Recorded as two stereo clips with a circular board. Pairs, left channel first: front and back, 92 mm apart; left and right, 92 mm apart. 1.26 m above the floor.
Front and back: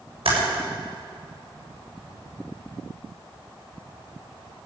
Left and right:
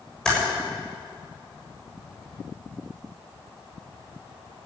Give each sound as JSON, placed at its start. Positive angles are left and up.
{"t": 0.2, "sound": "typing on a keyboard", "azimuth_deg": 175, "distance_m": 7.0}